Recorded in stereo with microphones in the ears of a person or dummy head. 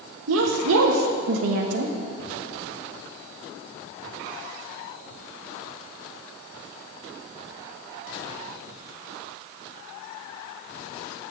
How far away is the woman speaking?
About 0.9 m.